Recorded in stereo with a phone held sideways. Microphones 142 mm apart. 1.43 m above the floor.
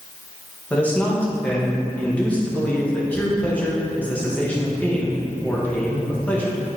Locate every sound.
0.7 s a man speaking: 10° left (ahead or behind), 1.9 m